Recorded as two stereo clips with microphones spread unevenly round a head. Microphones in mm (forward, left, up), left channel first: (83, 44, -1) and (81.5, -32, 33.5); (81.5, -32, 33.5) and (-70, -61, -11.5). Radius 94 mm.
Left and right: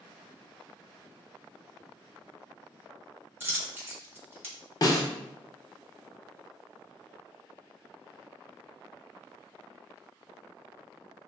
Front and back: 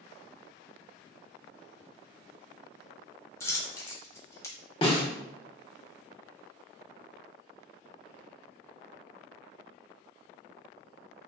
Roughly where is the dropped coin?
Ahead right.